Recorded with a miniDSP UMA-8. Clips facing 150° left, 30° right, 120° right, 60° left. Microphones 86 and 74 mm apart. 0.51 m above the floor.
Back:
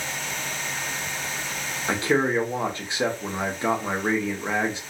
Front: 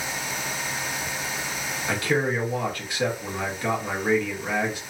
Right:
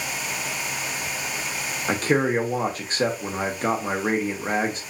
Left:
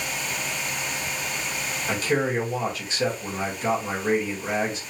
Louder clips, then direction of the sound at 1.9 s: Back 2 dB, right 3 dB; 150° right.